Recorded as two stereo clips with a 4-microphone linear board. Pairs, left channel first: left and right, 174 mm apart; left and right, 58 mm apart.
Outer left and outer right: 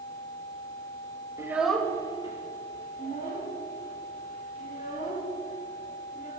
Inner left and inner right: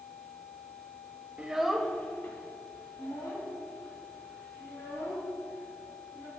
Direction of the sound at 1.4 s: 20° right (ahead or behind).